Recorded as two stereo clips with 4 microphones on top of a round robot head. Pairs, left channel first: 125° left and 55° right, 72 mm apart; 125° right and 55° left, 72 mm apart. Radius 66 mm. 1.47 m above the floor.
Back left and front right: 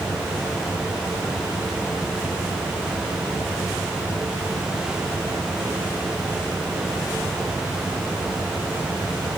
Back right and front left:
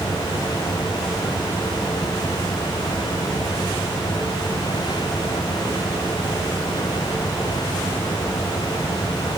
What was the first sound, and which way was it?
Only background noise.